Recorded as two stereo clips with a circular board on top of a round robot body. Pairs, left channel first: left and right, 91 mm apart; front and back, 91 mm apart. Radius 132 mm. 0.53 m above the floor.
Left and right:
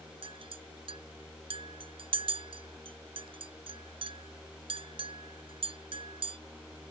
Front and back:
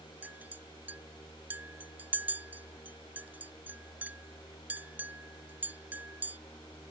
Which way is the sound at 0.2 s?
110° right.